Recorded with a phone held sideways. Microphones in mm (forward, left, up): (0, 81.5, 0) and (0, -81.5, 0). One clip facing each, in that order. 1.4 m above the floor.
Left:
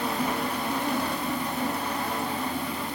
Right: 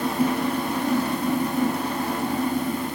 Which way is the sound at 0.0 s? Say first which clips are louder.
Right 5 dB; 45° right (ahead or behind).